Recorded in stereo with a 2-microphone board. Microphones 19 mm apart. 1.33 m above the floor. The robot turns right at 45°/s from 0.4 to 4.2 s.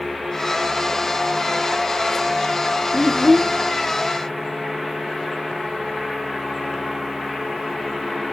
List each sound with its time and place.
2.9 s a child speaking: 35° right (ahead or behind), 0.6 m; by 3.6 s 20° right (ahead or behind), 0.6 m